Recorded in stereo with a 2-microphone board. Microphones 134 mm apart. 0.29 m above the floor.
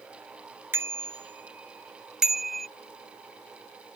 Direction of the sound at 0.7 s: 15° right (ahead or behind).